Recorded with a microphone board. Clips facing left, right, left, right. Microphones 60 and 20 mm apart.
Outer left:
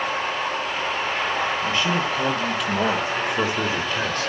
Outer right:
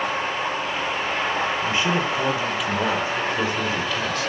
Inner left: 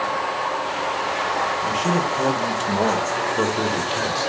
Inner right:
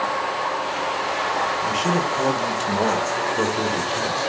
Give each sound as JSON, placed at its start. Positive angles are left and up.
{"t": 1.6, "sound": "a man speaking", "side_deg": -25, "distance_m": 2.5}